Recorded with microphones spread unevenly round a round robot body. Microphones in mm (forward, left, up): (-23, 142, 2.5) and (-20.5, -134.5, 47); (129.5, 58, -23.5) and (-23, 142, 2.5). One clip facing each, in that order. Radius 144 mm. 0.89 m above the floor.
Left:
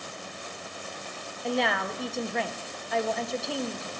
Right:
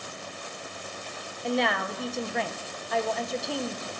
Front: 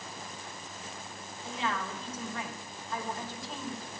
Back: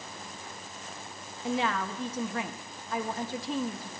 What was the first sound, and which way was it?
A woman speaking, 175° left.